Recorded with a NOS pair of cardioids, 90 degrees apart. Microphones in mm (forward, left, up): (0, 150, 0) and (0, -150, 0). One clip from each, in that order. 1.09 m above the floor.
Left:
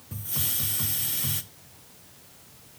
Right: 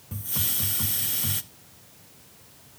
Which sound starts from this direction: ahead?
A hiss, at 0.1 s.